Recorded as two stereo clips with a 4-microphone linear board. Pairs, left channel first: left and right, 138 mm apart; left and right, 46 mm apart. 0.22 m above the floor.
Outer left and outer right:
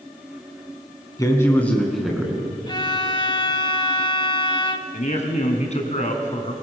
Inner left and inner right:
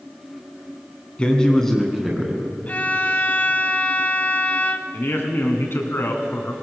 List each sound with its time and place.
1.2 s a man speaking: 25° left (ahead or behind), 2 m; by 2.4 s 10° right (ahead or behind), 3 m
2.7 s a violin: 35° left (ahead or behind), 0.6 m
4.9 s a man speaking: 55° left (ahead or behind), 2 m